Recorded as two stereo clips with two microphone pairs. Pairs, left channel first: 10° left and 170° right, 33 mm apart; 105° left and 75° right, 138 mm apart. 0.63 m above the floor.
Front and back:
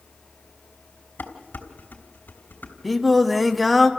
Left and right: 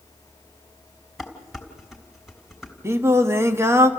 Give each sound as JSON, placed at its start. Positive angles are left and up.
{"t": 1.2, "sound": "dishes clattering", "azimuth_deg": 15, "distance_m": 3.0}
{"t": 2.8, "sound": "singing", "azimuth_deg": -90, "distance_m": 1.1}